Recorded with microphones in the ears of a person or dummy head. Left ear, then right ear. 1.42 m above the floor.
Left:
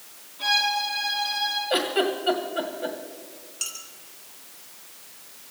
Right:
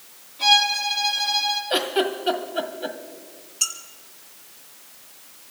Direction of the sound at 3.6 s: Centre (ahead or behind).